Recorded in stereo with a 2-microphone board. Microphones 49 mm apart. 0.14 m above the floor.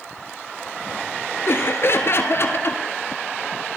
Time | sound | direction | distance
1.5 | laughter | 55° left (ahead or behind) | 1.9 m